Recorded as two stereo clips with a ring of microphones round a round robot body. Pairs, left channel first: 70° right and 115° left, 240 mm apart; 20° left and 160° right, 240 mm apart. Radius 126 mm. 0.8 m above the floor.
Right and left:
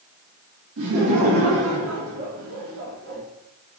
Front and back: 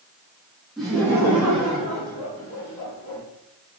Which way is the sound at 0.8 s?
115° left.